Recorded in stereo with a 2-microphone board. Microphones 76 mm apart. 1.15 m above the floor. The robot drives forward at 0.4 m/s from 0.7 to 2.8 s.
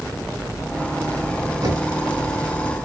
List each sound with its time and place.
1.6 s knocking: 40° right (ahead or behind), 5.5 m